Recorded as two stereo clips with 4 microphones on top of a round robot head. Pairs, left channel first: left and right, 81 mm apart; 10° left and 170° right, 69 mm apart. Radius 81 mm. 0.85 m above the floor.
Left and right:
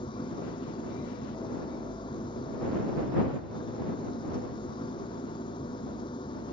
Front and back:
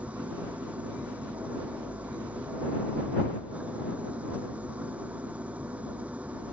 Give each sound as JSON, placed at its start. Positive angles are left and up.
{"t": 0.0, "sound": "an engine running", "azimuth_deg": 120}